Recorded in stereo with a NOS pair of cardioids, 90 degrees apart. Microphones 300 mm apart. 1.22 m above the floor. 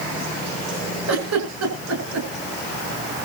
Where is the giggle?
65° right, 8.5 m.